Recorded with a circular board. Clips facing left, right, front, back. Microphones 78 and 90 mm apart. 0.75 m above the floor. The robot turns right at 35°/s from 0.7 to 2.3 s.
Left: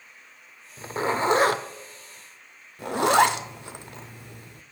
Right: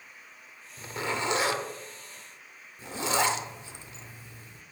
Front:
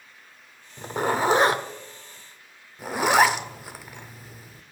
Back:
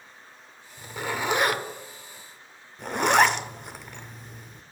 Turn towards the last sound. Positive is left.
turn(degrees=85)